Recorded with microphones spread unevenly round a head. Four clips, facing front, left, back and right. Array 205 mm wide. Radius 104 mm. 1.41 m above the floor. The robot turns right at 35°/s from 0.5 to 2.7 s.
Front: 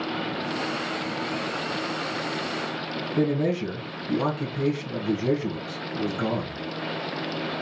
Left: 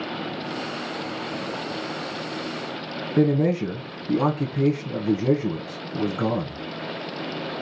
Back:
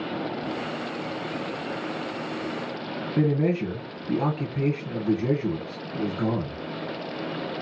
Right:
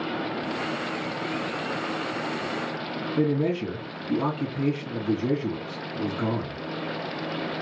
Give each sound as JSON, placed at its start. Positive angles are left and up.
{"t": 3.2, "sound": "a man speaking", "azimuth_deg": 115, "distance_m": 1.2}